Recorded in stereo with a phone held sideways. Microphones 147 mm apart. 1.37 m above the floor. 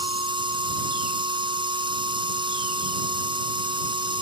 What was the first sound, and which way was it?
A machine running, 35° right (ahead or behind).